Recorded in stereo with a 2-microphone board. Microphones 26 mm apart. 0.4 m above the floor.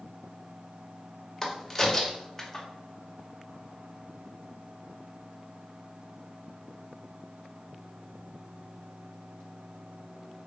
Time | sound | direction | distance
1.4 | a crack | 20° left (ahead or behind) | 1.8 m